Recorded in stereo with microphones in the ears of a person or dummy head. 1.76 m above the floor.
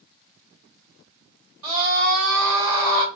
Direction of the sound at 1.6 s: 80° right.